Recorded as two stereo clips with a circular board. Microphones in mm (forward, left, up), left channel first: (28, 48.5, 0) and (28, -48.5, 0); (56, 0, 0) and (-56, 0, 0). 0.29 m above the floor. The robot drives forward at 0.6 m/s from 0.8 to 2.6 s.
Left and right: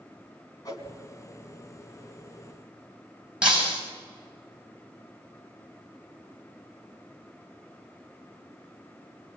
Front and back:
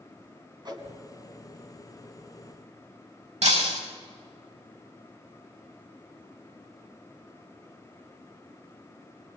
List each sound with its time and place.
0.7 s a whoosh: 135° left, 3 m; by 0.9 s 140° left, 3 m
3.4 s breaking glass: 170° right, 8 m